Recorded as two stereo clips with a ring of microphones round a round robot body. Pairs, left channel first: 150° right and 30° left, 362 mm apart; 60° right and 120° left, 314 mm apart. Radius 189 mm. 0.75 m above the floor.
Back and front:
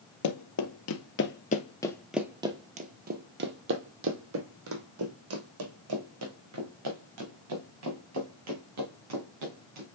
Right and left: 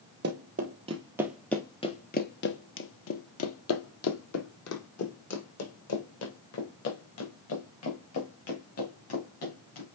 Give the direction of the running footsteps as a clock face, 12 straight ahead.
6 o'clock.